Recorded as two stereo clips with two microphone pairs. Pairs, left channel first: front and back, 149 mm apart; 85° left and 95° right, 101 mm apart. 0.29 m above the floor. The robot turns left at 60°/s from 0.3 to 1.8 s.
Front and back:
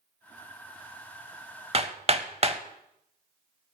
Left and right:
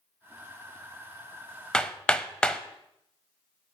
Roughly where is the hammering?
Behind.